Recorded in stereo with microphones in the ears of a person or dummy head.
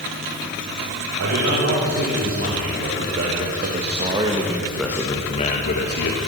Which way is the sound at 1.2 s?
60° right (ahead or behind).